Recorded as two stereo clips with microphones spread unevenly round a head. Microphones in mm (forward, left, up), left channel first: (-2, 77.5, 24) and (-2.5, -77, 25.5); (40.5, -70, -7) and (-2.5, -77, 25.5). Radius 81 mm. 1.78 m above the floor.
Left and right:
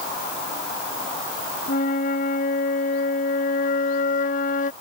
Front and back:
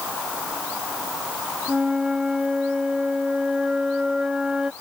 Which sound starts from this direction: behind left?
A flute, at 1.7 s.